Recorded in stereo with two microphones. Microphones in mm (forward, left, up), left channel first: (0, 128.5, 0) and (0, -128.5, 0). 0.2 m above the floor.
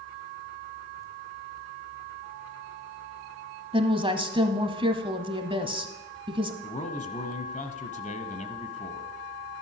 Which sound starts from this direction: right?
A woman speaking, at 3.7 s.